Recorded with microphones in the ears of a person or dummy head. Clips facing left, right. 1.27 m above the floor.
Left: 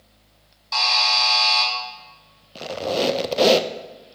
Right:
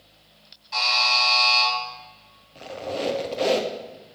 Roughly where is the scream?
I don't hear a scream.